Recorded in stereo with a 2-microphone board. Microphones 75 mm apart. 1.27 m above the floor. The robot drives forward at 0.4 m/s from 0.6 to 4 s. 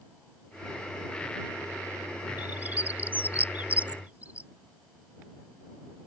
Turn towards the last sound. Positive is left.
turn(degrees=-20)  # may be behind; listen again after turning